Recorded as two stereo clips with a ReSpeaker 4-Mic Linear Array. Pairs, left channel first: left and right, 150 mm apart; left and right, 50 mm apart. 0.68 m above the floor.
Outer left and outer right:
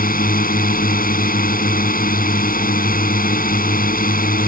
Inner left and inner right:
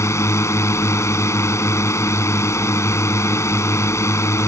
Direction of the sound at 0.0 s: 70° left (ahead or behind).